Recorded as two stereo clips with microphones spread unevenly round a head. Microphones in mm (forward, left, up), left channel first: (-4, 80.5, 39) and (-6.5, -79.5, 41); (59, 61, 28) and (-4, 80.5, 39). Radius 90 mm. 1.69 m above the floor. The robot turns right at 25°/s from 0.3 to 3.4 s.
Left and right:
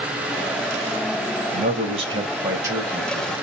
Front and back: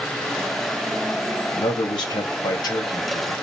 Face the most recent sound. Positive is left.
turn(degrees=0)